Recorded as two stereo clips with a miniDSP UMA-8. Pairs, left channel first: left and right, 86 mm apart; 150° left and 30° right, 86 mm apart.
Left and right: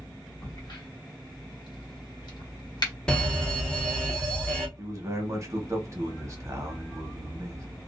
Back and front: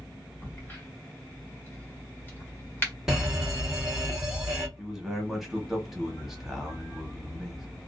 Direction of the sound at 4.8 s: 115° right.